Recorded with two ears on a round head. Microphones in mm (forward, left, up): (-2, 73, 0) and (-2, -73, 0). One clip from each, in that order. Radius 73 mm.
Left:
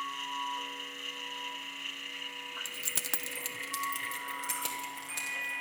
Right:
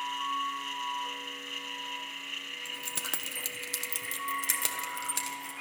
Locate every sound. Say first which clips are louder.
2.6 s keys jangling: even; 30° left (ahead or behind), 0.6 m; by 5.5 s 30° right (ahead or behind), 1.9 m